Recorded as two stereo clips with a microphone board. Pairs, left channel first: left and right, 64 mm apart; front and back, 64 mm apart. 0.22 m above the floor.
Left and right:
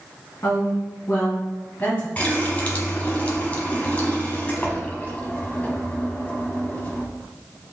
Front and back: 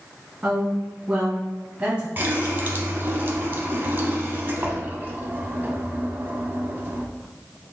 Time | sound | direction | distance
0.4 | a woman speaking | 115° left | 1.7 m
2.2 | a running tap | 145° left | 0.9 m